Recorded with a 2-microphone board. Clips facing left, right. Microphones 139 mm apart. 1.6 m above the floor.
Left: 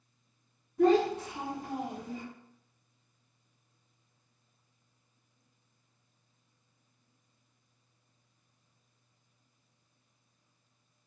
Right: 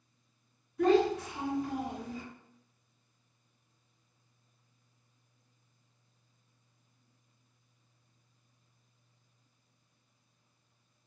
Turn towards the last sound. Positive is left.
turn(degrees=40)  # may be behind; listen again after turning